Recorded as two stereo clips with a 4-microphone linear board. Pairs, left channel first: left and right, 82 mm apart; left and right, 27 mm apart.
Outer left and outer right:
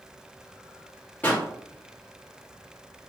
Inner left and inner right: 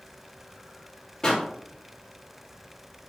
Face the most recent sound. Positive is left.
turn(degrees=20)  # may be behind; listen again after turning